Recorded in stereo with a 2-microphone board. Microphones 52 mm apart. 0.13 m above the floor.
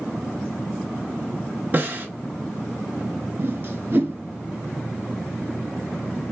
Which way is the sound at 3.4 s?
40° right (ahead or behind).